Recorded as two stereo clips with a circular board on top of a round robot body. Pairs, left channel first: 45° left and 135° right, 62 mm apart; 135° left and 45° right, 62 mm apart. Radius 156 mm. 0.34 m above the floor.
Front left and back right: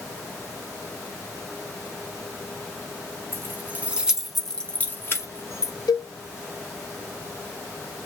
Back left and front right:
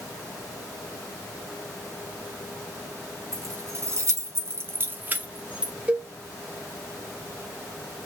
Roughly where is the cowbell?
Ahead left.